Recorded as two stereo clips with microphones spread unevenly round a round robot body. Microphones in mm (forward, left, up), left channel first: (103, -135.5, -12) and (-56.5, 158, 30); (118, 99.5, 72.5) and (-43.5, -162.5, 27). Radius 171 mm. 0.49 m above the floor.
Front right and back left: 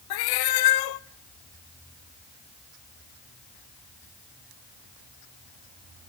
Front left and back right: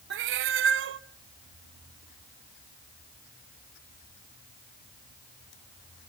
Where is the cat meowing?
70° right, 0.5 m.